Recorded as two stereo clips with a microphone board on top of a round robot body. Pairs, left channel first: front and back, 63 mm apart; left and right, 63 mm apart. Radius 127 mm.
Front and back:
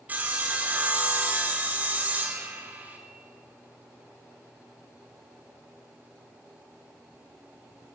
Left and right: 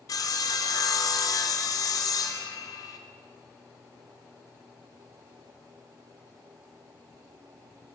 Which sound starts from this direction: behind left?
Sawing, at 0.1 s.